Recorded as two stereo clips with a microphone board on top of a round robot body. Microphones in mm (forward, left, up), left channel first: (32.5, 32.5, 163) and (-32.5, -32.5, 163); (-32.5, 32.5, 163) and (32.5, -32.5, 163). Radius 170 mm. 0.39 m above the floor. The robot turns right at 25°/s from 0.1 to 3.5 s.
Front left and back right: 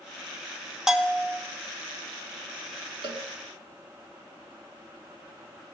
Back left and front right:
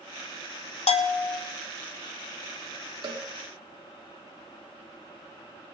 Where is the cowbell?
95° right, 1.3 m; by 3.2 s 90° right, 1.3 m.